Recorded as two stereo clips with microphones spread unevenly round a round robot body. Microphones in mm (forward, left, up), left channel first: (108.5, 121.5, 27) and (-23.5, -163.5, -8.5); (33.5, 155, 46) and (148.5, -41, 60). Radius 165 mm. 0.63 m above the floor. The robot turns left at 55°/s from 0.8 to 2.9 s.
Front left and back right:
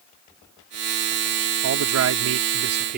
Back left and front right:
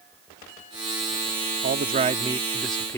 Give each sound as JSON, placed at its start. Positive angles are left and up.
{"t": 1.6, "sound": "a man speaking", "azimuth_deg": -95}